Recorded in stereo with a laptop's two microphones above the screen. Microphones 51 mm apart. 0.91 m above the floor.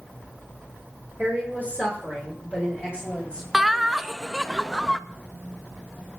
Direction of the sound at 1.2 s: 40° right (ahead or behind).